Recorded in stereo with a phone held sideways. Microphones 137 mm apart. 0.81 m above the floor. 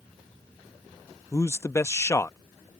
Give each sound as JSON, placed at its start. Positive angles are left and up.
{"t": 1.3, "sound": "a man speaking", "side_deg": 20}